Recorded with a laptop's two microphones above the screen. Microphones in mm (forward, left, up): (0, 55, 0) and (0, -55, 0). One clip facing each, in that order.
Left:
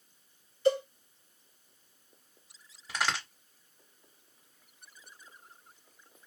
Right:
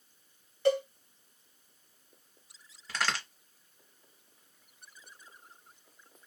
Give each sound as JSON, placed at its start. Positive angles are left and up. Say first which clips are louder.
{"t": 0.7, "sound": "a cowbell", "louder": "even", "side_deg": -60, "distance_m": 2.0}
{"t": 2.9, "sound": "a crack", "louder": "left 1 dB", "side_deg": 15, "distance_m": 1.2}